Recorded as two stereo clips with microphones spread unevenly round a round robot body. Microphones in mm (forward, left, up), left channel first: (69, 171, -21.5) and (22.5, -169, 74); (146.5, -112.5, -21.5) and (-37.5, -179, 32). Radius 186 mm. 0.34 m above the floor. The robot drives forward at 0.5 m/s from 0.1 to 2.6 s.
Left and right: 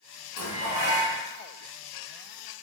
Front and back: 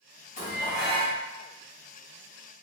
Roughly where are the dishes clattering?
Ahead left.